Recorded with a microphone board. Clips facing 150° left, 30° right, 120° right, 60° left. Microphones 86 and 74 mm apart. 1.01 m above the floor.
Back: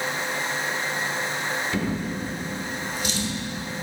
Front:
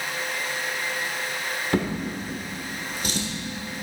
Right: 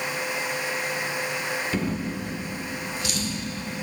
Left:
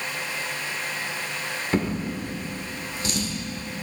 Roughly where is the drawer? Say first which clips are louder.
Front 1 dB, left 2 dB; ahead.